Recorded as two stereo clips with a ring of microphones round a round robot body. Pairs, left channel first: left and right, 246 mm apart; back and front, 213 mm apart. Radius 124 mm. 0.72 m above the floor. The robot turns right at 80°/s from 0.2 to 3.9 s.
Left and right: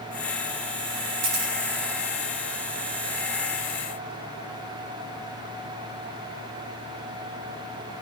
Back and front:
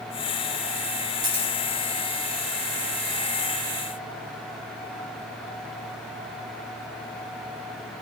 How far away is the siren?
I don't hear a siren.